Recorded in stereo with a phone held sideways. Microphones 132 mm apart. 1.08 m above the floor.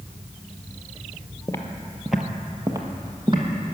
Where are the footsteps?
30° left (ahead or behind), 1.1 m; by 3.5 s 35° right (ahead or behind), 2 m.